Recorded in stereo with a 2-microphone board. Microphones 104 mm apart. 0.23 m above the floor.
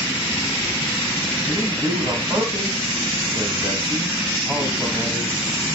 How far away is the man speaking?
About 1.4 m.